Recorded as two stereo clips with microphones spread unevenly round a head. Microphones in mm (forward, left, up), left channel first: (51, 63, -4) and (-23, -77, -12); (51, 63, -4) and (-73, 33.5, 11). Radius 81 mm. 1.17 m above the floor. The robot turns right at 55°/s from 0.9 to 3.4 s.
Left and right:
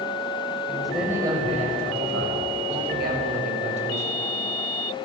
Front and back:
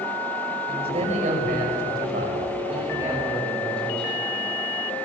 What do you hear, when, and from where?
0.7 s a man speaking: 150° left, 6.5 m; by 4.2 s 70° right, 6.5 m